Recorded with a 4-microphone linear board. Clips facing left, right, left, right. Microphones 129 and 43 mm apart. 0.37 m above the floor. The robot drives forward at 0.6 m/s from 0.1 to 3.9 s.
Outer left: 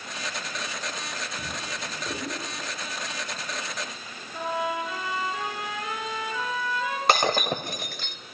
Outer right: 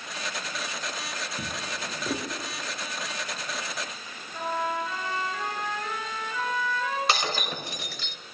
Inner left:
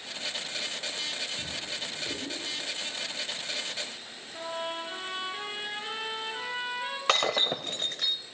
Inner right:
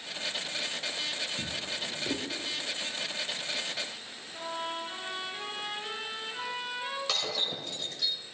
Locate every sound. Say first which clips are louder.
1.4 s a drawer: even, inner right 1 dB; 35° right (ahead or behind), 3.5 m; by 2.3 s 30° right (ahead or behind), 4 m
4.3 s a trumpet: outer left 1 dB, inner left 1 dB; 15° left (ahead or behind), 6.5 m
7.1 s breaking glass: outer left 6 dB, inner left 11 dB; 55° left (ahead or behind), 0.8 m